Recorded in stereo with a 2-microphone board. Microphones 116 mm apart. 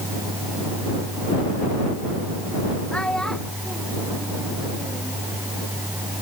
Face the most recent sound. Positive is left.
turn(degrees=-10)  # may be behind; listen again after turning